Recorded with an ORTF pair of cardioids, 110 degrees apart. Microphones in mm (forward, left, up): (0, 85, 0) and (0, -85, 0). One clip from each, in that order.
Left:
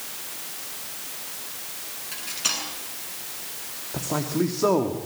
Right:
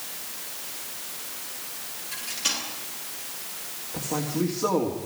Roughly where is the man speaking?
Ahead left.